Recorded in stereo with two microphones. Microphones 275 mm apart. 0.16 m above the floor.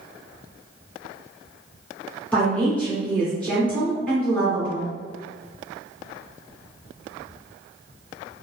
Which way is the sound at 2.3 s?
5° left (ahead or behind).